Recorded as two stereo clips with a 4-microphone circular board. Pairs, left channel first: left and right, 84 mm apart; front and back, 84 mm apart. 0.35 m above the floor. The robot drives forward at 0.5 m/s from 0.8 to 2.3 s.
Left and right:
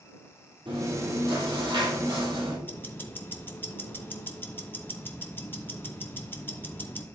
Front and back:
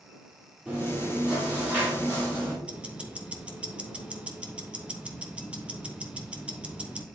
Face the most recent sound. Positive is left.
turn(degrees=125)